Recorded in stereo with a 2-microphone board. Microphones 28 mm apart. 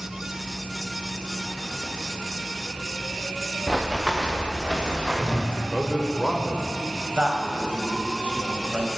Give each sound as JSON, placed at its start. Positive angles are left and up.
{"t": 3.7, "sound": "running footsteps", "side_deg": -15, "distance_m": 1.9}
{"t": 5.5, "sound": "a man speaking", "side_deg": -25, "distance_m": 1.5}
{"t": 7.2, "sound": "a man speaking", "side_deg": -35, "distance_m": 2.5}